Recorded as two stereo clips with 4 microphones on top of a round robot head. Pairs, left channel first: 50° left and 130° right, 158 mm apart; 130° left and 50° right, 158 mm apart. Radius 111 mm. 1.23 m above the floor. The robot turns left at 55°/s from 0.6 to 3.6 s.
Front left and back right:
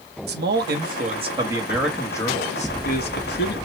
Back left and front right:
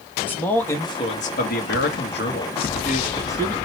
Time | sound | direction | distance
0.3 | a man speaking | 150° right | 1.4 m